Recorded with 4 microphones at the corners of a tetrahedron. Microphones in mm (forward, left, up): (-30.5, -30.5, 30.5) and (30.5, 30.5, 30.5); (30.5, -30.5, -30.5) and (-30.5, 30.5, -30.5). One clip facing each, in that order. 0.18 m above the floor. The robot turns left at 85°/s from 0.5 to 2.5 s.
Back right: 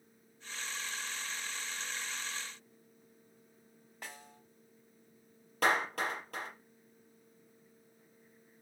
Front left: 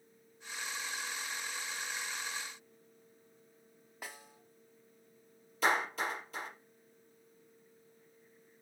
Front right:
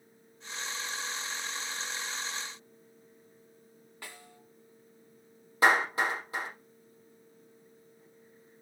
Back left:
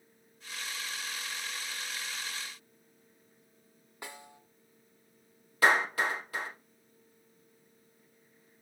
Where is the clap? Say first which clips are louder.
Back right 1 dB, front right 1 dB; 110° right, 4 m.